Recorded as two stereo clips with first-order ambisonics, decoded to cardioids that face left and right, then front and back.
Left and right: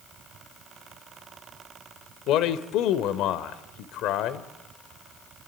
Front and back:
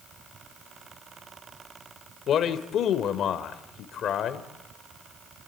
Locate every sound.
2.3 s a man speaking: 55° left, 1.8 m